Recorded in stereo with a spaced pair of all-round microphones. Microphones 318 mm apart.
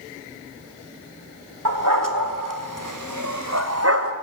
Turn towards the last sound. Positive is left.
turn(degrees=-40)  # may be behind; listen again after turning